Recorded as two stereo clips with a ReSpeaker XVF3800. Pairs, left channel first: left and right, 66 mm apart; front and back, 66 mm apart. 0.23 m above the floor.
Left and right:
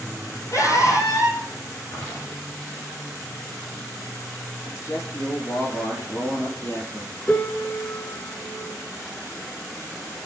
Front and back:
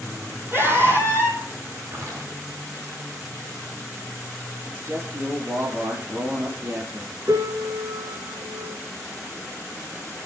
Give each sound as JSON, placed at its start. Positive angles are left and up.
{"t": 0.5, "sound": "a scream", "azimuth_deg": 130, "distance_m": 7.5}
{"t": 1.9, "sound": "footsteps", "azimuth_deg": 140, "distance_m": 10.0}
{"t": 4.7, "sound": "a man speaking", "azimuth_deg": 135, "distance_m": 5.0}
{"t": 7.3, "sound": "a piano", "azimuth_deg": 155, "distance_m": 0.9}